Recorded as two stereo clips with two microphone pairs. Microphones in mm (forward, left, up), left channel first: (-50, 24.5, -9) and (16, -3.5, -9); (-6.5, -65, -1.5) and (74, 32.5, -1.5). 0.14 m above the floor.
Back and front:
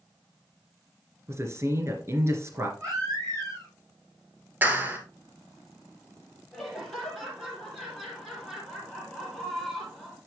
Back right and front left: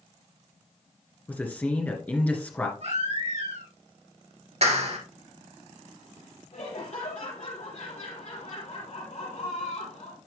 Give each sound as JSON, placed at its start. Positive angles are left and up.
{"t": 1.3, "sound": "a man speaking", "azimuth_deg": -55, "distance_m": 2.5}
{"t": 2.8, "sound": "a baby crying", "azimuth_deg": 25, "distance_m": 6.0}
{"t": 4.6, "sound": "a clap", "azimuth_deg": 35, "distance_m": 1.9}
{"t": 6.5, "sound": "laughter", "azimuth_deg": -115, "distance_m": 4.5}